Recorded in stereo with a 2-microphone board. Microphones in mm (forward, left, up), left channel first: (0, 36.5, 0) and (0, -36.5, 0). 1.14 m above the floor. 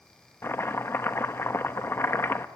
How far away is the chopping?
About 0.8 m.